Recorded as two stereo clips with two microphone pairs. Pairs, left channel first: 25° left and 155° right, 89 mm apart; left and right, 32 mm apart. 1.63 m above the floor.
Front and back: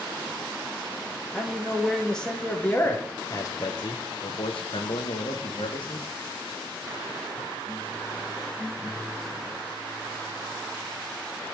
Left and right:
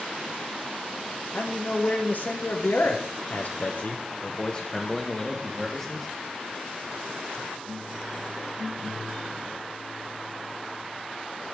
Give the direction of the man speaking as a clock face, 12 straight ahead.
8 o'clock.